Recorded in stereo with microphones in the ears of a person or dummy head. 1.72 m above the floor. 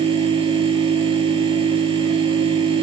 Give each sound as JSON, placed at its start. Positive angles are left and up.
{"t": 0.0, "sound": "a machine running", "side_deg": -25, "distance_m": 6.5}